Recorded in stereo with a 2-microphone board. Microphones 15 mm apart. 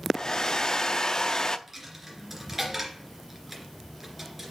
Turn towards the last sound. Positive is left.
turn(degrees=-15)  # may be behind; listen again after turning